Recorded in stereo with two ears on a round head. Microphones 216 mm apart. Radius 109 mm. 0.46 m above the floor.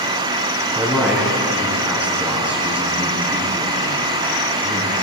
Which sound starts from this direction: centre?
A man speaking, at 0.8 s.